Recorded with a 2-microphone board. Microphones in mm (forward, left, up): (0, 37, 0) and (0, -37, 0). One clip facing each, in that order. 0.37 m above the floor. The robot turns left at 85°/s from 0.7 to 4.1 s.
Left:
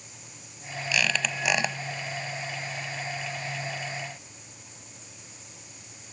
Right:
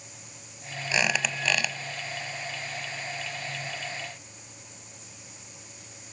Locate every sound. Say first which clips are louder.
0.9 s a squeak: right 1 dB; 145° right, 0.8 m; by 1.8 s 140° left, 0.8 m